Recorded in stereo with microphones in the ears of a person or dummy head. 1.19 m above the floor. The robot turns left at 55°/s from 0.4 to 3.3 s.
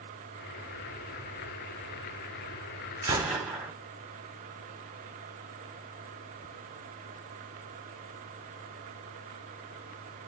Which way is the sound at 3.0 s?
20° right (ahead or behind).